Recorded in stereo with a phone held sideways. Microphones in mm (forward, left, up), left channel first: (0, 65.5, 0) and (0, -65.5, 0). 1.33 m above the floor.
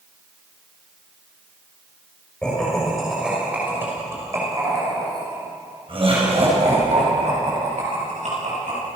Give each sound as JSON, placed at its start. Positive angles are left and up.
{"t": 2.4, "sound": "laughter", "side_deg": 5, "distance_m": 6.0}